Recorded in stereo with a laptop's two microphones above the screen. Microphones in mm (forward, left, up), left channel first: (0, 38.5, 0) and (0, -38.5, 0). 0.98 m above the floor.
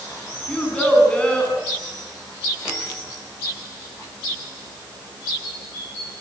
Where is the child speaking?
15° left (ahead or behind), 6.5 m.